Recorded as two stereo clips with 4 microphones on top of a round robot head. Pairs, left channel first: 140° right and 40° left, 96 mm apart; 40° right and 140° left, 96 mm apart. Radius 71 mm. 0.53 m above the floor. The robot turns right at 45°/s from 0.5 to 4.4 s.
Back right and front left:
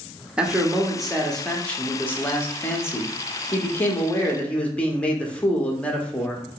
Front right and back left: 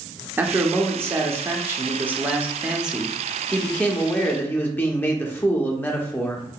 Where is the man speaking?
105° left, 0.7 m; by 6.4 s 80° right, 0.7 m.